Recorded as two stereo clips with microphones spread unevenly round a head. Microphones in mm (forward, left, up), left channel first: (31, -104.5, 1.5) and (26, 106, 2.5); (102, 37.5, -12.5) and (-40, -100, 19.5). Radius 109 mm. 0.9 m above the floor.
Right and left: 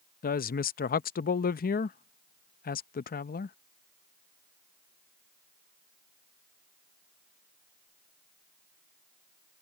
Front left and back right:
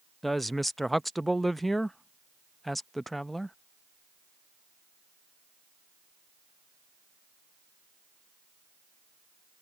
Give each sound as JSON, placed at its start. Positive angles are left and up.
{"t": 0.2, "sound": "a woman speaking", "azimuth_deg": -40}